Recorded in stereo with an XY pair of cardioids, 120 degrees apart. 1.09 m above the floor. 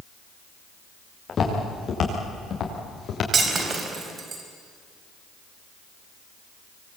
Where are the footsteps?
35° left, 7.5 m; by 3.2 s 50° left, 7.5 m.